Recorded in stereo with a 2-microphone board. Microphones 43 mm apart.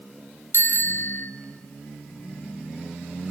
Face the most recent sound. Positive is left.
turn(degrees=65)  # may be behind; listen again after turning